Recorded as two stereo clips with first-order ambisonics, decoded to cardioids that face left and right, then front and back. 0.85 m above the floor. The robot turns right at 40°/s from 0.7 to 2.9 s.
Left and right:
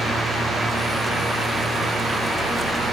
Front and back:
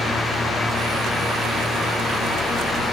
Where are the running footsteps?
I don't hear running footsteps.